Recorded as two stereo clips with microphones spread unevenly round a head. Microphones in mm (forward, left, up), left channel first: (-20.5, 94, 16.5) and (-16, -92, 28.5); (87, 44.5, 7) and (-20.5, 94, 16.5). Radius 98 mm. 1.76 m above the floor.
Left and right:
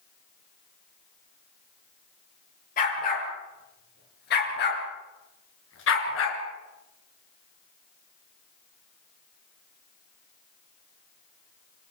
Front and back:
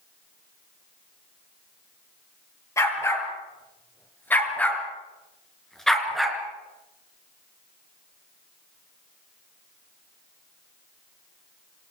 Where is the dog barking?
40° left, 8 m; by 6.4 s 70° left, 5 m.